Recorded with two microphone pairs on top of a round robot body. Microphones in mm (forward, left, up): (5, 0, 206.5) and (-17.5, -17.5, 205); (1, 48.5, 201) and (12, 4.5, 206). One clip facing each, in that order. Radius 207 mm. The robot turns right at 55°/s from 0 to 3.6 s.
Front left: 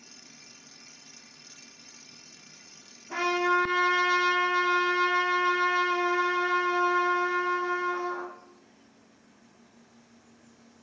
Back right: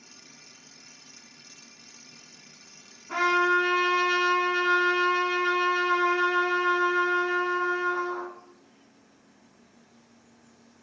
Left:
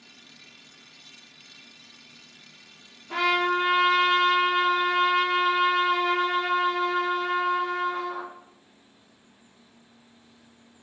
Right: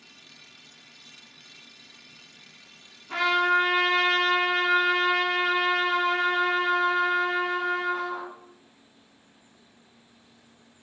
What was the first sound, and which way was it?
A trumpet, 155° right.